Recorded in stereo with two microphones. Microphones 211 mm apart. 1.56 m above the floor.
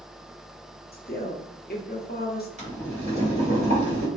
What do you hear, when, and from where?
0.9 s a woman speaking: 45° left (ahead or behind), 0.6 m
2.6 s boiling: 30° right (ahead or behind), 1.5 m